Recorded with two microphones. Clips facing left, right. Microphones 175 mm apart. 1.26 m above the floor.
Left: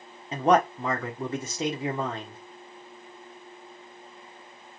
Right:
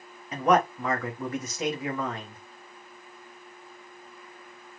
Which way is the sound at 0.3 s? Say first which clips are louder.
Left 1 dB; 30° left (ahead or behind).